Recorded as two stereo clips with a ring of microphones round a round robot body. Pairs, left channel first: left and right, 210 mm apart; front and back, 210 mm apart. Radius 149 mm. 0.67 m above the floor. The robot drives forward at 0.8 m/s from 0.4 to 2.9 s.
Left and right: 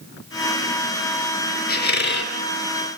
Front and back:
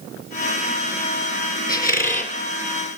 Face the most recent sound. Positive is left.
turn(degrees=70)